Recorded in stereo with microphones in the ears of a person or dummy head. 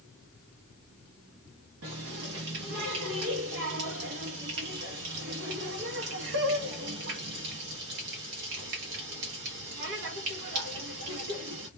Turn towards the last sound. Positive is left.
turn(degrees=-60)  # may be behind; listen again after turning